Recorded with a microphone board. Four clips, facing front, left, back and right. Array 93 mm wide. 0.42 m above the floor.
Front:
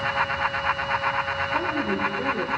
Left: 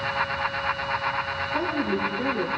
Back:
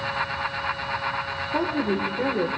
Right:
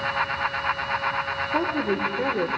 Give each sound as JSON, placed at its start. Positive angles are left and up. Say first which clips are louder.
{"t": 1.5, "sound": "a woman speaking", "louder": "right 2 dB, back 3 dB", "azimuth_deg": -125, "distance_m": 1.3}